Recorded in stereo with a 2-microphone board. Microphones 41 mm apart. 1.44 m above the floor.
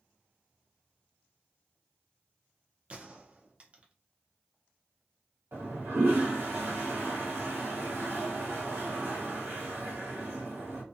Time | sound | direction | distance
2.9 | a gunshot | 30° right (ahead or behind) | 0.5 m
5.5 | a toilet flushing | 70° right (ahead or behind) | 1.0 m